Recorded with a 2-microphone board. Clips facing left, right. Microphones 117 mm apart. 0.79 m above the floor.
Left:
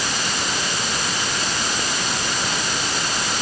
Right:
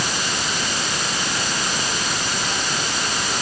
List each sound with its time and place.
Only background noise.